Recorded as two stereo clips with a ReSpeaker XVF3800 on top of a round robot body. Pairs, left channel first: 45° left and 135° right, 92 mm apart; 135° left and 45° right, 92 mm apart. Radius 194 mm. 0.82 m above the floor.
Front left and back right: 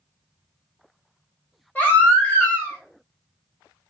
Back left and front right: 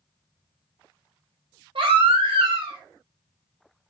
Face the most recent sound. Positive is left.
turn(degrees=-30)